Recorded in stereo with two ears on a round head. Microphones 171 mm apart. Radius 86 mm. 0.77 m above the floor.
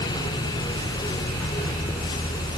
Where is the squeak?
No squeak in this recording.